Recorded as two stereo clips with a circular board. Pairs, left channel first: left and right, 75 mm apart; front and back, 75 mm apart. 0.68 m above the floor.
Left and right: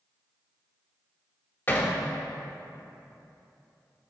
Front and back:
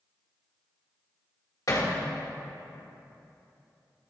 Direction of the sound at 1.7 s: 35° left.